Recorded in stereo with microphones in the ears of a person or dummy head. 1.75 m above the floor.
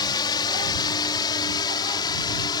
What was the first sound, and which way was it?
A drone, 25° left (ahead or behind).